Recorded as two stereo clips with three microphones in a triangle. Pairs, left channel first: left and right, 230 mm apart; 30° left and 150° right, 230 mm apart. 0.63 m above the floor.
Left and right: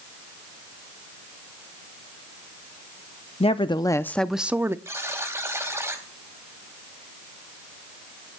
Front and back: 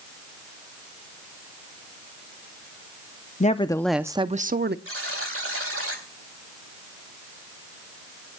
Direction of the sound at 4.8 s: 170° right.